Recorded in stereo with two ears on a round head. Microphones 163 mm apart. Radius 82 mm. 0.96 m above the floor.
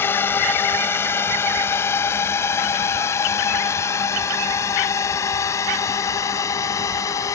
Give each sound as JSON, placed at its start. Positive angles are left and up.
{"t": 0.0, "sound": "a drone", "side_deg": 15}